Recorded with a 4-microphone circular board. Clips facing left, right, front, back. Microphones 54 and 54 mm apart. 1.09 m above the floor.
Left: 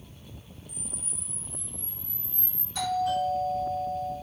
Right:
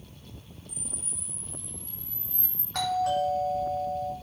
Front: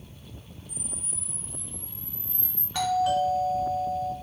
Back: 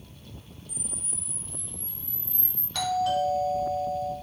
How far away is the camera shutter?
About 2.5 m.